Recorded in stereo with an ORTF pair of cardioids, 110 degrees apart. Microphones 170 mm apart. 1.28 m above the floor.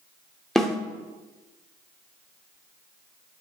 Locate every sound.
0.6 s a snare drum: straight ahead, 0.7 m